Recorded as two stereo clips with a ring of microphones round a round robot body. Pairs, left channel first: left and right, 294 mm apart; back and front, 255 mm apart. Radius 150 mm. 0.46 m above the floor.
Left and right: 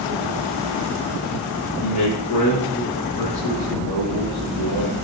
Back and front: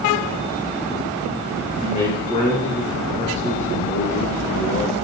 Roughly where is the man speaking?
Behind left.